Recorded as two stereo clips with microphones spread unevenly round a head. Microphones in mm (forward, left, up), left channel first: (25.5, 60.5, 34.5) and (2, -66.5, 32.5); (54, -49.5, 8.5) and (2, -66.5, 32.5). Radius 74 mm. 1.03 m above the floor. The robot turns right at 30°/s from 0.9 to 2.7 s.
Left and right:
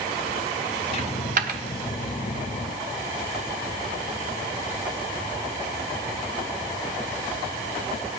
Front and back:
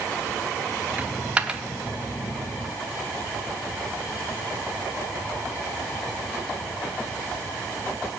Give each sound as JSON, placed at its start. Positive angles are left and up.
{"t": 1.0, "sound": "a dropped coin", "azimuth_deg": -135, "distance_m": 0.7}